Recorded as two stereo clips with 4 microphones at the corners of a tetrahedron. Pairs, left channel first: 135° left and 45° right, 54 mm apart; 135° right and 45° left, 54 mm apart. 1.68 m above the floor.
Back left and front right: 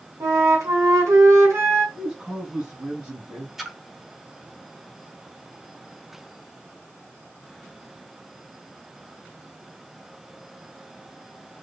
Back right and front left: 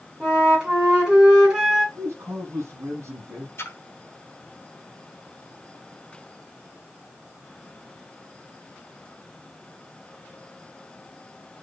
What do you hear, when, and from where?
0.2 s a flute: 25° right, 2.5 m
1.9 s a man speaking: 35° left, 2.5 m
3.6 s a splash: 125° right, 0.8 m